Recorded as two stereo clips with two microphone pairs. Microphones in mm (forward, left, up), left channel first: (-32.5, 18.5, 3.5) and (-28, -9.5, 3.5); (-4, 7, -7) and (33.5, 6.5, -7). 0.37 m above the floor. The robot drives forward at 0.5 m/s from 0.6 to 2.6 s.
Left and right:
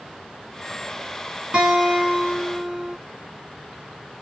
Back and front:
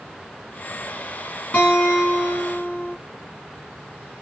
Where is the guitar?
135° right, 2 m; by 3.0 s 145° right, 2.5 m.